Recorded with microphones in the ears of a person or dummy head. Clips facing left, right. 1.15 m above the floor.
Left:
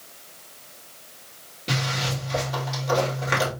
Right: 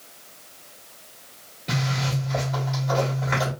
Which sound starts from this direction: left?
A zipper, at 1.7 s.